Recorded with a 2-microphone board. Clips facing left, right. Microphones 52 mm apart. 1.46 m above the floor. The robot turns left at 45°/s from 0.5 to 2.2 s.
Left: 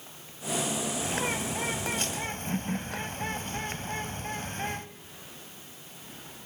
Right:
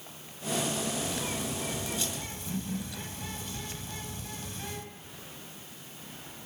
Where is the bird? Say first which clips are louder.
Left 3 dB; 120° left, 1.8 m; by 4.9 s 65° left, 1.8 m.